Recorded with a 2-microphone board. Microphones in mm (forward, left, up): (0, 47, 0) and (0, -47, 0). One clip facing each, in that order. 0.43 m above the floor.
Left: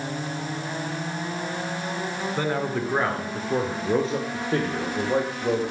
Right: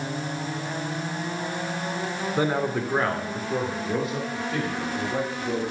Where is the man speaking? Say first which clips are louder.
Right 2 dB; 15° right (ahead or behind), 1.2 m; by 5.6 s 55° left (ahead or behind), 1.9 m.